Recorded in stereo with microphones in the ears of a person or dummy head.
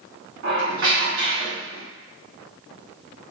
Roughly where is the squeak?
Right.